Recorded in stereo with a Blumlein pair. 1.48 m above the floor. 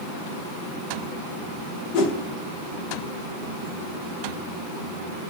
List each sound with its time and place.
1.9 s a whoosh: 40° left, 0.6 m